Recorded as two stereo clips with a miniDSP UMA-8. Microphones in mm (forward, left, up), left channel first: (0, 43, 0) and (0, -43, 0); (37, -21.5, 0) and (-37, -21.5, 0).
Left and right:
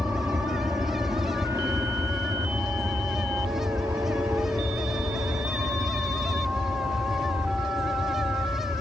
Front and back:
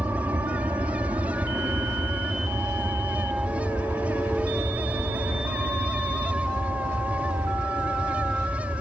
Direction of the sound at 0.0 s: 140° right.